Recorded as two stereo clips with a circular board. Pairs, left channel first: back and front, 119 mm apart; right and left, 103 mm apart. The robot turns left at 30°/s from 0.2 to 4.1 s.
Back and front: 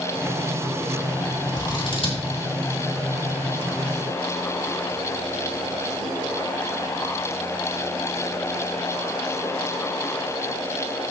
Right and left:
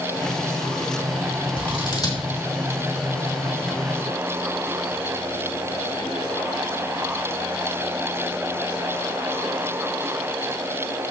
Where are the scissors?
125° right, 3.5 m; by 2.2 s 145° right, 3.5 m.